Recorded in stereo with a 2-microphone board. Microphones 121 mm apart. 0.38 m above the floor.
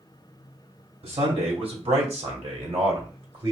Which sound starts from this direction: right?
A man speaking, at 1.0 s.